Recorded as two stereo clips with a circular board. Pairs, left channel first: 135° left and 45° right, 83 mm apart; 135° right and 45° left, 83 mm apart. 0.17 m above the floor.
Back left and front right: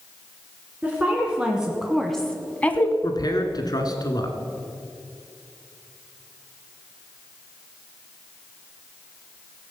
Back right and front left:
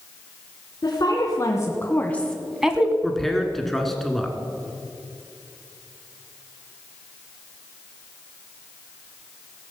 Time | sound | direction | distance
0.8 | a woman speaking | 115° right | 2.0 m
3.0 | a man speaking | 140° left | 1.7 m